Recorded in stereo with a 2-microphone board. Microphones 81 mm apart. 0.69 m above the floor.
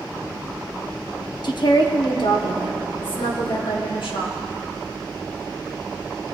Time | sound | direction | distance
1.4 | a woman speaking | 55° left (ahead or behind) | 0.8 m